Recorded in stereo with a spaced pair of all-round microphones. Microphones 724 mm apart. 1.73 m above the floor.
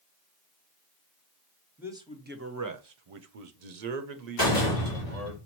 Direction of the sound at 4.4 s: 30° left (ahead or behind).